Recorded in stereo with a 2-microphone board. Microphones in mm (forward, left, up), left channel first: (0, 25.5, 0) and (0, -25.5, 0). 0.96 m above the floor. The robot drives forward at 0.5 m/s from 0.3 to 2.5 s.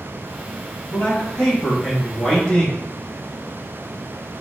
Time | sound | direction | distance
0.9 | a man speaking | 50° left (ahead or behind) | 0.9 m